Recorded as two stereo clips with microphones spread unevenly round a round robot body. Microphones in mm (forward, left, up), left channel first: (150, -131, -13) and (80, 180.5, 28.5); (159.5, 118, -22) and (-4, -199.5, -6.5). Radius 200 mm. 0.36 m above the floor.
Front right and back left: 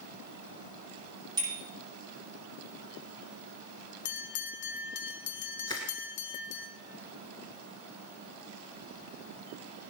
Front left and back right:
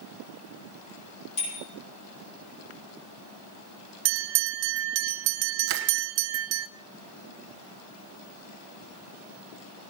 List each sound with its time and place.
1.4 s a bicycle bell: 25° left, 8 m
4.0 s a bell: 130° right, 0.5 m
5.7 s crushing: 160° right, 0.9 m